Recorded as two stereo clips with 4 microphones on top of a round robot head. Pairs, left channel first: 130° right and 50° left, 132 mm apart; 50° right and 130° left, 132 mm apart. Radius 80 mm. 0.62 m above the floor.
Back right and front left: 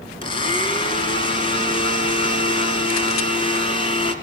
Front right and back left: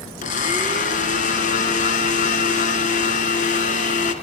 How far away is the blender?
About 2 m.